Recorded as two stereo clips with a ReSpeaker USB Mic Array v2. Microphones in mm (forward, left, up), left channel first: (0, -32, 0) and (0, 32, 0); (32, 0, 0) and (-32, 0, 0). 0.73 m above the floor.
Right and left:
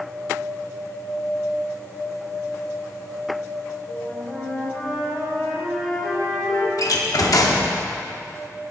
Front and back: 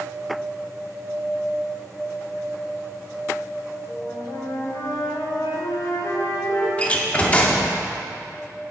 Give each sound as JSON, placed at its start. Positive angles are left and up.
{"t": 3.9, "sound": "a flute", "azimuth_deg": -10, "distance_m": 1.5}
{"t": 6.8, "sound": "a door slam", "azimuth_deg": -70, "distance_m": 0.8}